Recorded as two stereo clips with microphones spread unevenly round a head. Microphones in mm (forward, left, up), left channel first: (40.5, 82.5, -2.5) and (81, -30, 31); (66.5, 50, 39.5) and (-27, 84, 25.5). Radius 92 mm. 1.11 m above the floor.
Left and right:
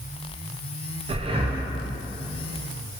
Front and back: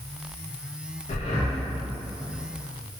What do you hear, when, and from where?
1.1 s breathing: 30° right, 0.5 m